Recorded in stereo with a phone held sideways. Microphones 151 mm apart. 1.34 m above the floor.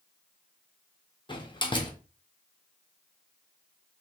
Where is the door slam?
30° left (ahead or behind), 0.9 m.